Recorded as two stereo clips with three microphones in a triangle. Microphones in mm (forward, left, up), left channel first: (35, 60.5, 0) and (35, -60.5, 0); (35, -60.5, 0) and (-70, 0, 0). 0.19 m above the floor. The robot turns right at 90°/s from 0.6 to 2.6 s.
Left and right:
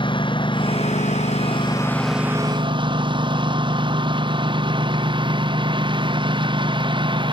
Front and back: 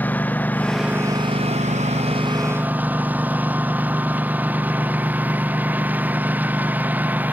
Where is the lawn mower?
45° left; by 7.3 s 135° right.